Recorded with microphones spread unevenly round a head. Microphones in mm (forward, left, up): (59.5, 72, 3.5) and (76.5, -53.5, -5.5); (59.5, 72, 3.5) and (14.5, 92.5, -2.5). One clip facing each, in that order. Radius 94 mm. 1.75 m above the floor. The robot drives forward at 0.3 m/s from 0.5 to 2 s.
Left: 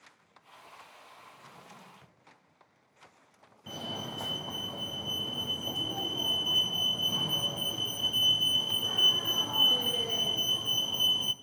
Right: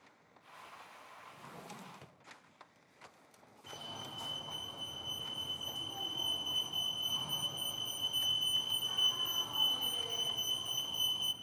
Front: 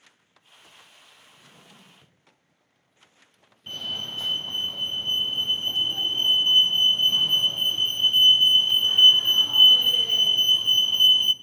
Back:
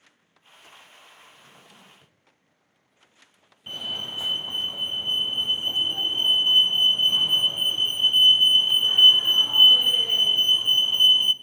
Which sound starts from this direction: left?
A fire alarm, at 3.7 s.